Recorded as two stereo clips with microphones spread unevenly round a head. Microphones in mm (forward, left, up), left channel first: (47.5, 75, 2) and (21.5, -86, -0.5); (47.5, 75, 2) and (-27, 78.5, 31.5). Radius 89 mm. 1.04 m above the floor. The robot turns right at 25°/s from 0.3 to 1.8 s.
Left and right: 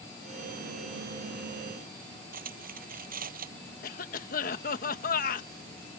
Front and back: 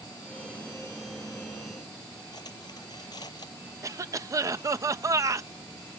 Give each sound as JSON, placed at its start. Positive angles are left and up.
{"t": 2.3, "sound": "cutlery clinking", "azimuth_deg": -65}
{"t": 3.8, "sound": "a cough", "azimuth_deg": 120}